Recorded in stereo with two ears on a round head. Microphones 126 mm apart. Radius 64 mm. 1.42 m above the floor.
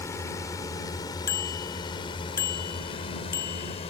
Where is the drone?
20° left (ahead or behind); by 3.9 s 45° left (ahead or behind).